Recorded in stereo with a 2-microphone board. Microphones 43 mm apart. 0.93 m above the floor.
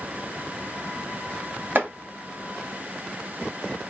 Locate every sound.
1.8 s chopping: 55° right (ahead or behind), 1.3 m